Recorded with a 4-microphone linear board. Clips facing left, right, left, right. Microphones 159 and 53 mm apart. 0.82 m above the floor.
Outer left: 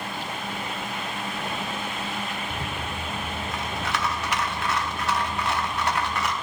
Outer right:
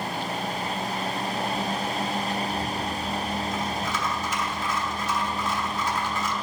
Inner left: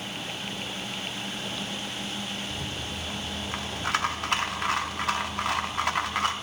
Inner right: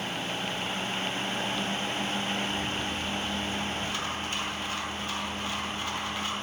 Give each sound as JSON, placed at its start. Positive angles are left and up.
{"t": 2.5, "sound": "a rattle", "side_deg": 70, "distance_m": 0.7}